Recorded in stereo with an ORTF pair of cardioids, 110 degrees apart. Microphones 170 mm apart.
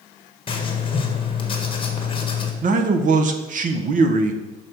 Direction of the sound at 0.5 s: 30° left.